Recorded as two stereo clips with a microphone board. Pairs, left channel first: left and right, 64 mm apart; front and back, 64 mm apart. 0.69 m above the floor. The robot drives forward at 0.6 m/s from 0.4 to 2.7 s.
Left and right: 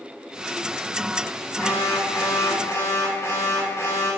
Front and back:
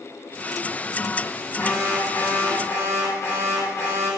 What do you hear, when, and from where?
1.6 s an alarm: 45° left, 4.5 m; by 4.1 s 55° left, 4 m